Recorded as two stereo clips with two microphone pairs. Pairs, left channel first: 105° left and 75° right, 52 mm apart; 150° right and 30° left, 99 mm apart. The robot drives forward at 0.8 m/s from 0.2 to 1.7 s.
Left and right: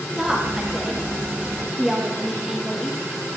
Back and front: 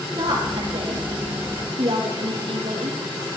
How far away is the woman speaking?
About 6.5 m.